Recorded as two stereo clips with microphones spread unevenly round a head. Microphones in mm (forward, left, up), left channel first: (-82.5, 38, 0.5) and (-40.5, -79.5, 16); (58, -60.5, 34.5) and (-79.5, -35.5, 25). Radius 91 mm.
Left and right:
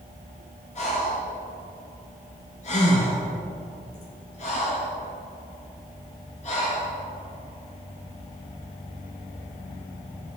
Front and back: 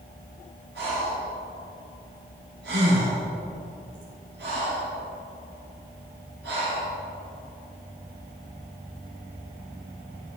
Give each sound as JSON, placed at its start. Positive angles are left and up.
{"t": 0.8, "sound": "breathing", "azimuth_deg": 140, "distance_m": 3.0}